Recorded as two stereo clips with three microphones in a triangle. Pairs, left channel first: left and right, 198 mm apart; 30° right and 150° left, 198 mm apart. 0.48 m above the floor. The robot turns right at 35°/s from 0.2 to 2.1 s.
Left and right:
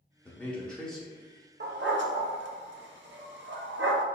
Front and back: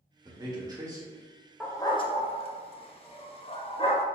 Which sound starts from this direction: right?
A dog barking, at 1.6 s.